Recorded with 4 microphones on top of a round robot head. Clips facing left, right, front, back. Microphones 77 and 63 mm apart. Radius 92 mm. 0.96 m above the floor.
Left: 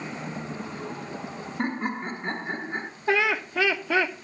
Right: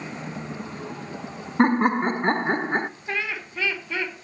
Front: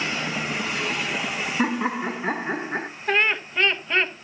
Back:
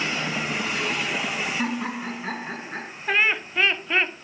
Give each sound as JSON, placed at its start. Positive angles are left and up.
{"t": 1.6, "sound": "laughter", "azimuth_deg": -70, "distance_m": 1.3}
{"t": 3.1, "sound": "laughter", "azimuth_deg": 95, "distance_m": 2.5}